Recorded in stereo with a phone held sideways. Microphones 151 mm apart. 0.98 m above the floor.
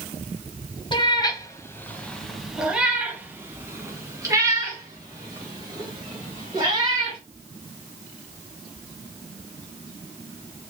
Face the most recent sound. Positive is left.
turn(degrees=-30)  # may be behind; listen again after turning